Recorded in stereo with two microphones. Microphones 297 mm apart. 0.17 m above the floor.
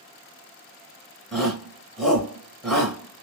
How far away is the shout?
About 1.6 m.